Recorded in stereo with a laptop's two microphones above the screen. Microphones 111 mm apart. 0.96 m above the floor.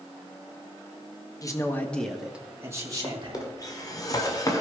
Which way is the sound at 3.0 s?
35° left (ahead or behind).